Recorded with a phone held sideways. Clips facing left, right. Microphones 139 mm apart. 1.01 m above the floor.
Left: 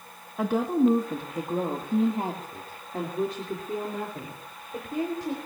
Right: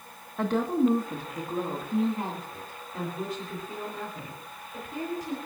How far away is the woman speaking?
About 1.3 m.